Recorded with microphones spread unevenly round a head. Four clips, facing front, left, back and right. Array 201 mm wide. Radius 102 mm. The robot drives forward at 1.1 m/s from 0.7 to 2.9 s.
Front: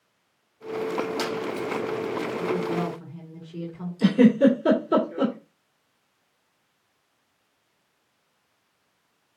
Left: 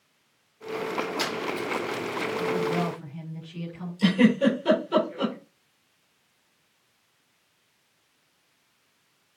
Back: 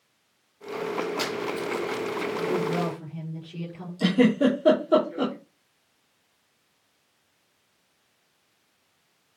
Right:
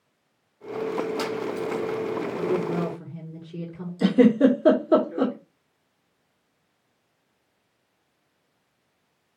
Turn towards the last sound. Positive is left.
turn(degrees=-95)